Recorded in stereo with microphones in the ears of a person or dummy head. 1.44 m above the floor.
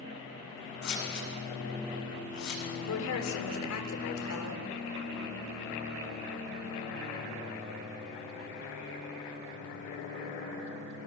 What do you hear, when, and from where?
0.8 s scissors: 55° left (ahead or behind), 8 m
2.9 s a woman speaking: 85° left, 4 m